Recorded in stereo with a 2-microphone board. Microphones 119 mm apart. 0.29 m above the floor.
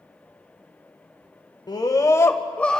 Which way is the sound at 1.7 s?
35° left (ahead or behind).